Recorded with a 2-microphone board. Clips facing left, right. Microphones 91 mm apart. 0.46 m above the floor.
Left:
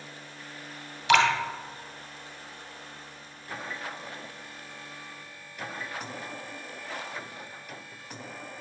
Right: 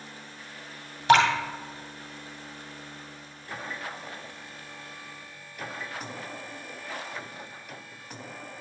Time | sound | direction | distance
1.1 | dripping | 40° right (ahead or behind) | 1.7 m